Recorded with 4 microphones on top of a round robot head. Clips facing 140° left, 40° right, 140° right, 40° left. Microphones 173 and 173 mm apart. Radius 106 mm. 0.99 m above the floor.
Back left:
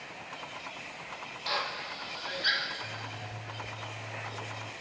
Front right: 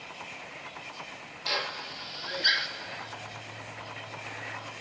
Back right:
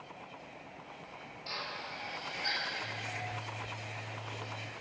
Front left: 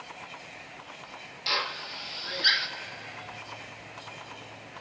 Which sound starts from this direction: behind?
A zipper, at 2.8 s.